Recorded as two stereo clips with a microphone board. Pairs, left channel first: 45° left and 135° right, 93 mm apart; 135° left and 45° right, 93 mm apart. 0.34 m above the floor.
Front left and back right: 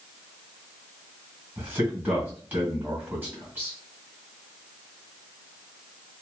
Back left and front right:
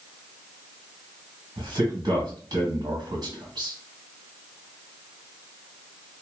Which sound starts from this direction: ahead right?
A man speaking, at 1.6 s.